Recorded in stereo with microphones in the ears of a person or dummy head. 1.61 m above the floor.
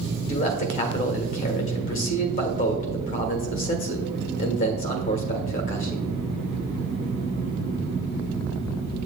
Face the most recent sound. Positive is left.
turn(degrees=50)  # may be behind; listen again after turning